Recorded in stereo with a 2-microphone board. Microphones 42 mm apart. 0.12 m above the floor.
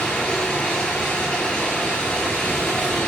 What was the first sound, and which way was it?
Running water, 25° left (ahead or behind).